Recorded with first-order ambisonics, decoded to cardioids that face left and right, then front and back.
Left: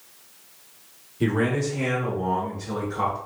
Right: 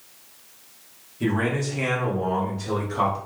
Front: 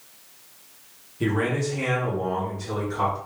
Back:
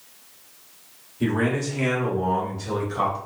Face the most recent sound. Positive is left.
turn(degrees=-130)